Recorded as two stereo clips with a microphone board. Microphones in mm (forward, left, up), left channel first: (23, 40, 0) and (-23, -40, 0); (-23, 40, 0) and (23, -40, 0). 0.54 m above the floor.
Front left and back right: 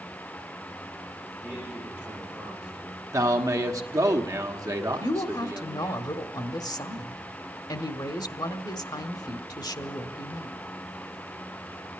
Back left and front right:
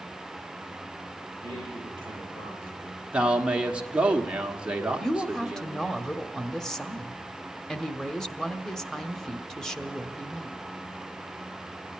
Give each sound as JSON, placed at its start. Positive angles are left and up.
{"t": 1.4, "sound": "a man speaking", "azimuth_deg": 160, "distance_m": 10.0}
{"t": 3.1, "sound": "a man speaking", "azimuth_deg": -130, "distance_m": 1.3}
{"t": 5.0, "sound": "a woman speaking", "azimuth_deg": 40, "distance_m": 1.0}